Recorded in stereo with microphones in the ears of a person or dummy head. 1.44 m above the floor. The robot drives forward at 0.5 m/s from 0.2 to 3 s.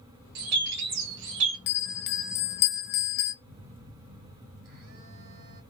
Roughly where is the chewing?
I don't hear chewing.